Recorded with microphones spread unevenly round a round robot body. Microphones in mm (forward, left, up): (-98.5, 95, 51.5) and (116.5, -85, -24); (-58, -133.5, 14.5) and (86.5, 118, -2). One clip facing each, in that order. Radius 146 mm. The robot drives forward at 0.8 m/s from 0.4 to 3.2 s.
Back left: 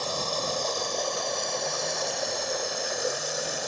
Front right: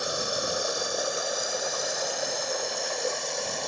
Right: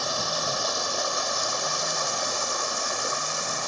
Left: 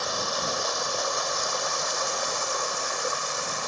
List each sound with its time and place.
0.0 s running water: 120° right; by 3.7 s 135° right